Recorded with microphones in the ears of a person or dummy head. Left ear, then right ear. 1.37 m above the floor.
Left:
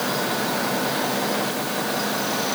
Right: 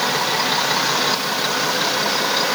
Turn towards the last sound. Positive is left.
No sound to turn to.